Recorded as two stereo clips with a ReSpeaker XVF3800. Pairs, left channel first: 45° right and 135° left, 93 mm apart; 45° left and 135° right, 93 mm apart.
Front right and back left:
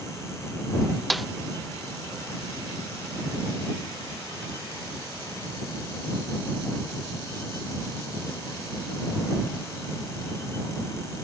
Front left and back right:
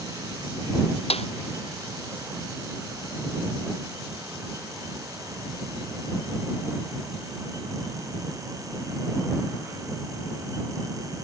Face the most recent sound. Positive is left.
turn(degrees=45)